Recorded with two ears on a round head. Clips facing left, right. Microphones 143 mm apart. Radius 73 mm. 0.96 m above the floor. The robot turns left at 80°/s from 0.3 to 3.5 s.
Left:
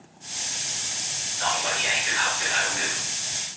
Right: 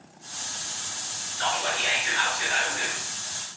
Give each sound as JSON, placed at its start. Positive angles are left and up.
{"t": 1.4, "sound": "whispering", "azimuth_deg": -85, "distance_m": 1.4}